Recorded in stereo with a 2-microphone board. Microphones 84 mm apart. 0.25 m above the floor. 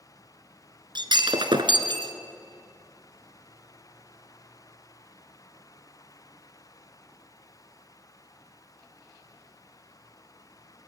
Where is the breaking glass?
70° right (ahead or behind), 1.5 m.